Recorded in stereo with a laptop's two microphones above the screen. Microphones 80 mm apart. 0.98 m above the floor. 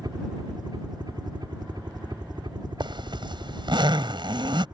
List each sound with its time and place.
0.0 s a helicopter: 60° right (ahead or behind); by 4.8 s 65° right (ahead or behind)
2.8 s a zipper: 75° right (ahead or behind)